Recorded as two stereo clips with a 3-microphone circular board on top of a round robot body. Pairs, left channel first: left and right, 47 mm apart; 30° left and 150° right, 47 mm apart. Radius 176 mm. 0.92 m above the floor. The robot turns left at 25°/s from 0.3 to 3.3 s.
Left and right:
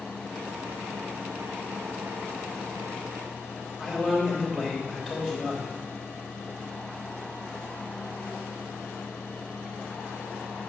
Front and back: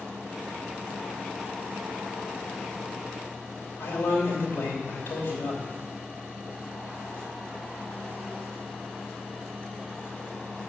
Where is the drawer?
I don't hear a drawer.